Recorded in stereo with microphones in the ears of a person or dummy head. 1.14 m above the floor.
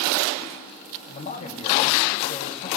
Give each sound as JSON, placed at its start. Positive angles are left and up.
{"t": 1.1, "sound": "a man speaking", "side_deg": 40, "distance_m": 2.5}